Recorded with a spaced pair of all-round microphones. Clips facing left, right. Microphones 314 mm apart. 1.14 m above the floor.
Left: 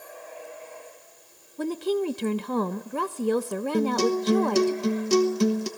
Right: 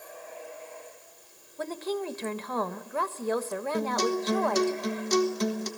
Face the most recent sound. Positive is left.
turn(degrees=40)  # may be behind; listen again after turning